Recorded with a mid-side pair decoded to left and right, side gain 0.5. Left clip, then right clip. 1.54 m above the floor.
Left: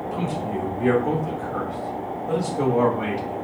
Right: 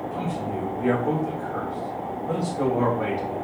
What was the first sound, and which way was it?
A man speaking, 35° left.